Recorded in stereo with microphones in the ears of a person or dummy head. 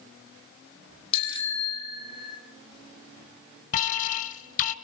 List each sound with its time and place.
1.1 s a bicycle bell: 30° left (ahead or behind), 5.5 m; by 2.4 s 25° left (ahead or behind), 6 m
3.7 s an alarm: 45° left (ahead or behind), 2 m